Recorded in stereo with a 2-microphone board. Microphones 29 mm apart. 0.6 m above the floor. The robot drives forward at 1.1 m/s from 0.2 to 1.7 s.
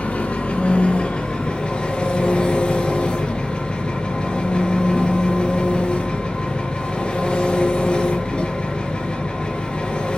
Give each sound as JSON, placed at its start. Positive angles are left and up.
{"t": 0.0, "sound": "an engine running", "side_deg": 60, "distance_m": 2.5}